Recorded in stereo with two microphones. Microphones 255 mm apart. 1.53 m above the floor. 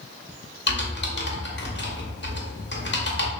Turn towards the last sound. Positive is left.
turn(degrees=45)  # may be behind; listen again after turning